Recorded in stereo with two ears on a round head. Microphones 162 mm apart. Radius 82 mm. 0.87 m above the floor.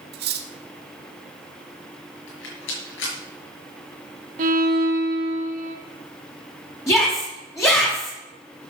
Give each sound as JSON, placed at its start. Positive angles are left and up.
{"t": 0.1, "sound": "cutlery clinking", "side_deg": -65, "distance_m": 1.2}
{"t": 2.3, "sound": "a rattle", "side_deg": 80, "distance_m": 5.5}
{"t": 4.4, "sound": "a violin", "side_deg": -45, "distance_m": 1.7}
{"t": 6.9, "sound": "a shout", "side_deg": 15, "distance_m": 5.0}